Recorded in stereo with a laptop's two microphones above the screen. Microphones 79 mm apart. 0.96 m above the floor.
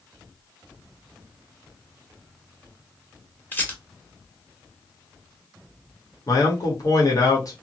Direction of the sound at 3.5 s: 25° left (ahead or behind).